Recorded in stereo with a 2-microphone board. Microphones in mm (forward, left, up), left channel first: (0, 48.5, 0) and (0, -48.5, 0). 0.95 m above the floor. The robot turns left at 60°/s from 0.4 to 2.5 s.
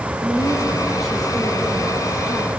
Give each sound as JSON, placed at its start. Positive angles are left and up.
{"t": 0.2, "sound": "a woman speaking", "azimuth_deg": -140, "distance_m": 4.0}